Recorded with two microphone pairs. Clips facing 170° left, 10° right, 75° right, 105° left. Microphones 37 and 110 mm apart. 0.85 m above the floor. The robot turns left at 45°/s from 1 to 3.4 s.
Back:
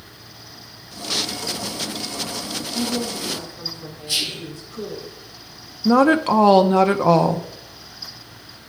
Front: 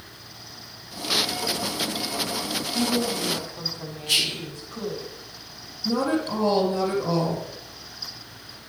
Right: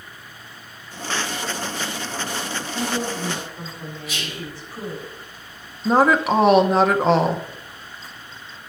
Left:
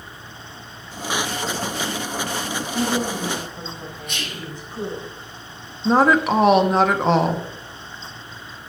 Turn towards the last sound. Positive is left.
turn(degrees=-165)